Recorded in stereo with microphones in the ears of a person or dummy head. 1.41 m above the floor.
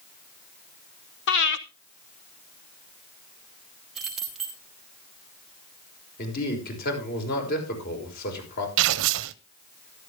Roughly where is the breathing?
Left.